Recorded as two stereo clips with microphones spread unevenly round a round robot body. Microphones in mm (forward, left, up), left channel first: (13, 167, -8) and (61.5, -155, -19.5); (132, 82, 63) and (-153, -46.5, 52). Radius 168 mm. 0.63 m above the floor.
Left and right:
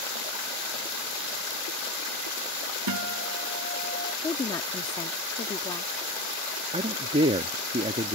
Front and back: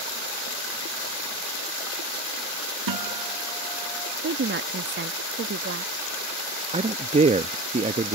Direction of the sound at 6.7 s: 125° right.